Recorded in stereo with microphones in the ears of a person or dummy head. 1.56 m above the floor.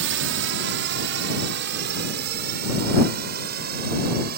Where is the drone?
65° right (ahead or behind); by 4.4 s 50° right (ahead or behind).